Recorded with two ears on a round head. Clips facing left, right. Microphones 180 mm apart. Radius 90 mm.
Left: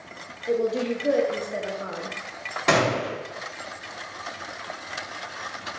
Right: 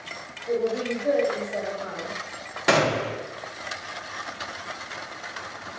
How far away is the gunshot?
About 0.8 m.